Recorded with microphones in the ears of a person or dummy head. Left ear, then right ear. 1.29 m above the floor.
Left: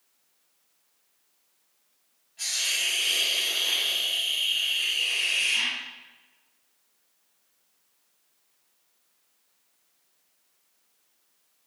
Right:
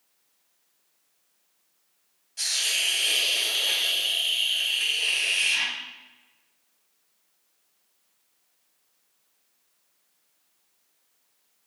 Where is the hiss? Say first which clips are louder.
Right 2 dB; 70° right (ahead or behind), 2.5 m.